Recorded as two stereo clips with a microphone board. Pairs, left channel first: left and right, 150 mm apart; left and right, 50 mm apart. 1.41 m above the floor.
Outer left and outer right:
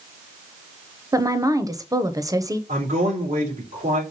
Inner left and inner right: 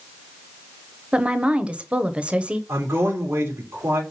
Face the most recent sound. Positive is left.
turn(degrees=-50)  # may be behind; listen again after turning